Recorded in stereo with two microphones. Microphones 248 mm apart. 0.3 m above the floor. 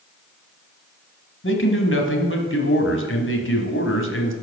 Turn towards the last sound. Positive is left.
turn(degrees=55)  # may be behind; listen again after turning